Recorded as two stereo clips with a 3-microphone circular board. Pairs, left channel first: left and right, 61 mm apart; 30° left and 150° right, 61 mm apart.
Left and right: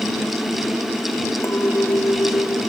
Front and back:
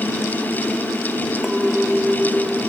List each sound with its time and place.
1.4 s a clink: 130° left